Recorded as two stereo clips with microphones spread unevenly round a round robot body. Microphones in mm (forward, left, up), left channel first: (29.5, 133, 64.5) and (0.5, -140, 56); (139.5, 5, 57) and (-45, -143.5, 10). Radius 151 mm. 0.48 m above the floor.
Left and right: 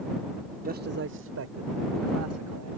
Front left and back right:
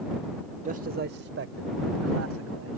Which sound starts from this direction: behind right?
A man speaking, at 0.7 s.